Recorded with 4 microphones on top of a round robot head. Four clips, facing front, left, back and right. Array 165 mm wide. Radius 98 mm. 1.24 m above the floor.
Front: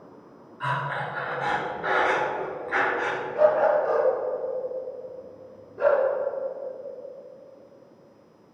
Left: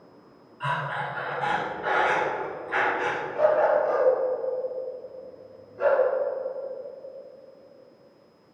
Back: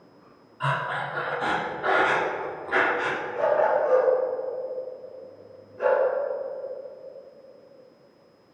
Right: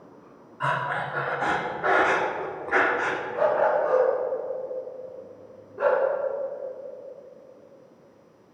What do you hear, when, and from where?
0.6 s breathing: 120° right, 1.4 m
3.3 s a dog barking: 75° right, 3 m